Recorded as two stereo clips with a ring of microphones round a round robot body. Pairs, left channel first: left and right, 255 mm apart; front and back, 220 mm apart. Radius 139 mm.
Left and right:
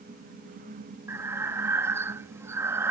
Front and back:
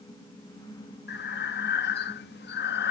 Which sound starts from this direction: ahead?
Breathing, at 1.1 s.